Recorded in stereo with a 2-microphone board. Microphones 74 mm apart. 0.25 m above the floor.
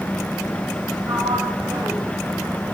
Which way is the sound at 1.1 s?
50° right (ahead or behind).